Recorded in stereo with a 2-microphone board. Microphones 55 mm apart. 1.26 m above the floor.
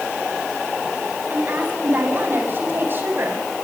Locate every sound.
1.3 s a woman speaking: 35° right (ahead or behind), 9.5 m; by 3.4 s 45° right (ahead or behind), 9.5 m